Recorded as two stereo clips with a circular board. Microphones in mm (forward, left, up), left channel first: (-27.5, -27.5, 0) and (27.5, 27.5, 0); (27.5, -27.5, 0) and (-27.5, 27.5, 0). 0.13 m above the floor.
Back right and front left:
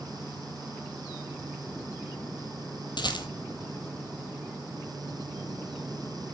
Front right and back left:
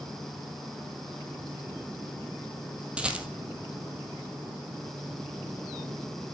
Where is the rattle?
150° right, 1.3 m.